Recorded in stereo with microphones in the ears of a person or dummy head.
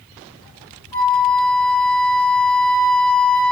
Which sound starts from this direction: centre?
A flute, at 0.9 s.